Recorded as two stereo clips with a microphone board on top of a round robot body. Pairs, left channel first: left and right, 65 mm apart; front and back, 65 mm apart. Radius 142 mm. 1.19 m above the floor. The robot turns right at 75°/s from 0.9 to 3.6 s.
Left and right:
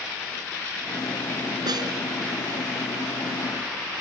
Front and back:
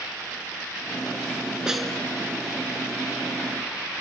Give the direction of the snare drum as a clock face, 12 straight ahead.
3 o'clock.